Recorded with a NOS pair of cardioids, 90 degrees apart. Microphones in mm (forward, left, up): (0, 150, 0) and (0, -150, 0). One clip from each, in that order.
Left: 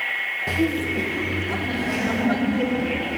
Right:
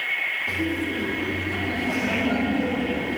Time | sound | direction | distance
0.5 | laughter | 65° left | 1.2 m